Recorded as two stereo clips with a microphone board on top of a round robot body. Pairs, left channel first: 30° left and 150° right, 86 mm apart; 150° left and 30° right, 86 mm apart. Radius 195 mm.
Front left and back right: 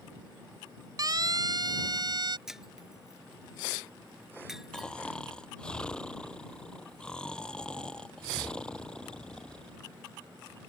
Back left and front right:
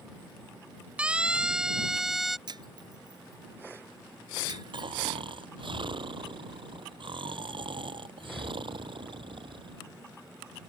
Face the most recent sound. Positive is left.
turn(degrees=-50)